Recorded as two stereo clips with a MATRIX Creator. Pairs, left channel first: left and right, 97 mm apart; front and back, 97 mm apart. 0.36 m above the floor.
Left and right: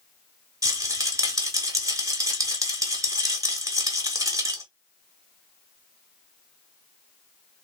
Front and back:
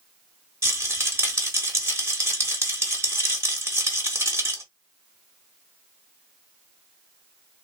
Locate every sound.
0.6 s a rattle: 125° right, 0.9 m